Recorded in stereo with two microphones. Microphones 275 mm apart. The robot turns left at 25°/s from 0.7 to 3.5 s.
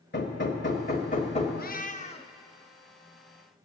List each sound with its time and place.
0.1 s hammering: 40° left (ahead or behind), 1.6 m; by 1.5 s 20° left (ahead or behind), 1.6 m
1.6 s a cat meowing: 35° left (ahead or behind), 0.5 m; by 2.3 s 20° left (ahead or behind), 0.5 m